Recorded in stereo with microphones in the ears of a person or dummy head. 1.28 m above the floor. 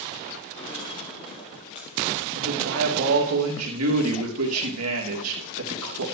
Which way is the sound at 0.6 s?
30° left (ahead or behind).